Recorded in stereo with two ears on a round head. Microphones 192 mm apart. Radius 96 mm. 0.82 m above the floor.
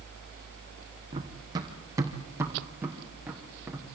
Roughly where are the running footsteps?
Right.